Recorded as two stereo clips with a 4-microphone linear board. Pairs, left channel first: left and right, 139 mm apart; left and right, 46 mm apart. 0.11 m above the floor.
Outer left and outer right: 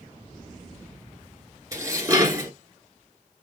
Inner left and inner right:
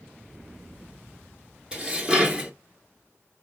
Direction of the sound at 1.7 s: 20° right (ahead or behind).